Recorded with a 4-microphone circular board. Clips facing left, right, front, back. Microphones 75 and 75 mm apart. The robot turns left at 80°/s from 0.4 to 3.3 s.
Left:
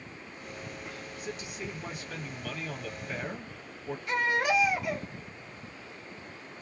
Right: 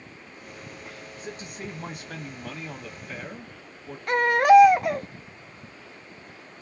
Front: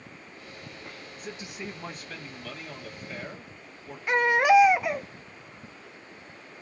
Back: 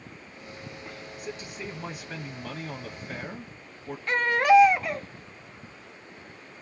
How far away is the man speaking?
About 0.7 m.